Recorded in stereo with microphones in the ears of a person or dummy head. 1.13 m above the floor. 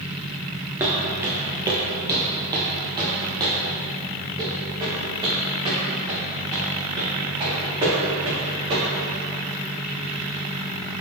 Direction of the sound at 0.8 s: 10° right (ahead or behind).